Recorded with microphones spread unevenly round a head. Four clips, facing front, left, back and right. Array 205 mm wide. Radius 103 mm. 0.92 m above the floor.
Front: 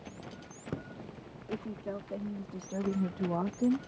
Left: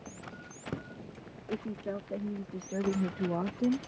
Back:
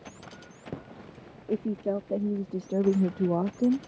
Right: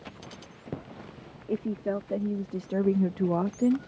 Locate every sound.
1.5 s a woman speaking: 150° right; by 3.9 s 130° right